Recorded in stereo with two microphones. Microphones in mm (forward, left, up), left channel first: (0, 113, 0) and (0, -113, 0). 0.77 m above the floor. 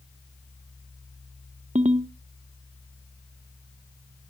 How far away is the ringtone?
About 0.6 m.